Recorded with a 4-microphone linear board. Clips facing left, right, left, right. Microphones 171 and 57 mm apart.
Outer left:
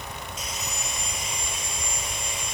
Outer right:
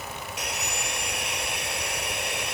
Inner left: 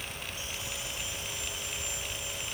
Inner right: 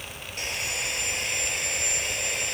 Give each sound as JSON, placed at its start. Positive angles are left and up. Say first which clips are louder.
{"t": 0.4, "sound": "sawing", "louder": "outer right 2 dB, inner right 8 dB", "side_deg": -80}